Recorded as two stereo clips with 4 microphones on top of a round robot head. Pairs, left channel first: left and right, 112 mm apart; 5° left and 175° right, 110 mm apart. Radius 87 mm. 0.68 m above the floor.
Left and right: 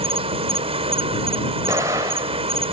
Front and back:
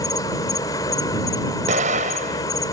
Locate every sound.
0.0 s an insect: 60° right
1.7 s an explosion: 160° right